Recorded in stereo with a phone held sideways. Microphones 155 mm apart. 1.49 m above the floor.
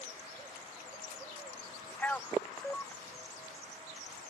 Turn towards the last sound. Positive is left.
turn(degrees=10)  # may be behind; listen again after turning